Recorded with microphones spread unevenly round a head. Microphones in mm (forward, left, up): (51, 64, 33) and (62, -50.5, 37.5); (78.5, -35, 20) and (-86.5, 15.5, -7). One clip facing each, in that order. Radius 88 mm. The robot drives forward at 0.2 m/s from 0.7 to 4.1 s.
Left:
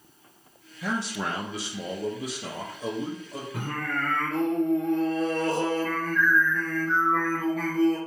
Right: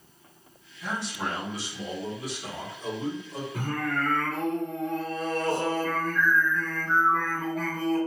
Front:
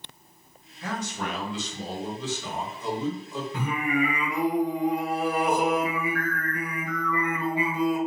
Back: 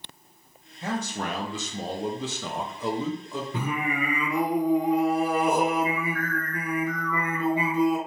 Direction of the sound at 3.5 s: 160° left.